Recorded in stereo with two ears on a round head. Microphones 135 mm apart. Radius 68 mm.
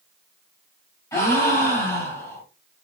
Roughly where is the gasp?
Centre.